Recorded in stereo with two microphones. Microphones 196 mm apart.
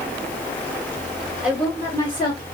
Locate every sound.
1.4 s a woman speaking: 5° right (ahead or behind), 1.1 m; by 2.5 s 30° left (ahead or behind), 1.4 m